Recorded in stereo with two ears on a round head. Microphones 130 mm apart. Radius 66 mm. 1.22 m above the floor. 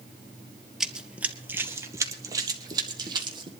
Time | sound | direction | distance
0.8 | running footsteps | 5° right (ahead or behind) | 1.5 m